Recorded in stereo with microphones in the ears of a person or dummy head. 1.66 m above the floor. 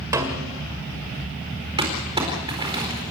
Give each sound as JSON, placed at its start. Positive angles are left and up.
{"t": 0.1, "sound": "a snare drum", "side_deg": -15, "distance_m": 1.9}
{"t": 1.8, "sound": "crumpling", "side_deg": -25, "distance_m": 4.0}